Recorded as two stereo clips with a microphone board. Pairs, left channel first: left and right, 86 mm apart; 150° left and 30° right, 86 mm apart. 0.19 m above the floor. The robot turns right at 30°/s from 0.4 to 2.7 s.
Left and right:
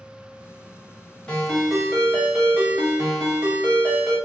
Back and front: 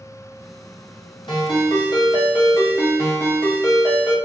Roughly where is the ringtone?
Behind.